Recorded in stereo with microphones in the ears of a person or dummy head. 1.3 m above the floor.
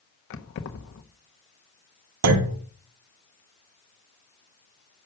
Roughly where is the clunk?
Right.